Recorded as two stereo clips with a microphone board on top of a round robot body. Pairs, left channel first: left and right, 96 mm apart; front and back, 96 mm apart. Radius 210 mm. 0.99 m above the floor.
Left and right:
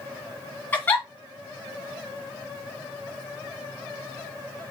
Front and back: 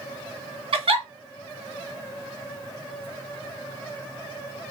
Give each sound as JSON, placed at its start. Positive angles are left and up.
{"t": 0.7, "sound": "a giggle", "azimuth_deg": 160, "distance_m": 2.5}